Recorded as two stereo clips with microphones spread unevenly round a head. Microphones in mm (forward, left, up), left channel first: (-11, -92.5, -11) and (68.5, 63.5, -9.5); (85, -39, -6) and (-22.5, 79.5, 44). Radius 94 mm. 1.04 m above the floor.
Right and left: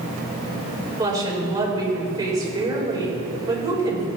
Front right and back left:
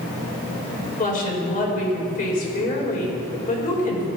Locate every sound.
1.0 s a woman speaking: 5° right, 3.5 m